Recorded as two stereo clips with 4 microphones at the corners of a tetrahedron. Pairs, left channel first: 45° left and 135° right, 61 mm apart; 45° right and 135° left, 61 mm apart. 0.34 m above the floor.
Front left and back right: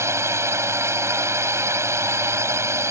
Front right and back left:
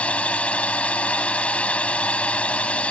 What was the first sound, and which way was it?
A drone, 110° right.